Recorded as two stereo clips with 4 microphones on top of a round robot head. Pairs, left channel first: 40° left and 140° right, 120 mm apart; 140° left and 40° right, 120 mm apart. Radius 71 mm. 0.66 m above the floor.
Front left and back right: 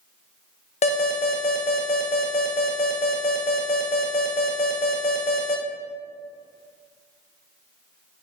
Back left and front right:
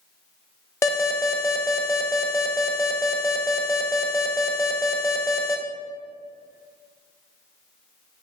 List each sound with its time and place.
0.8 s an alarm: 75° left, 0.6 m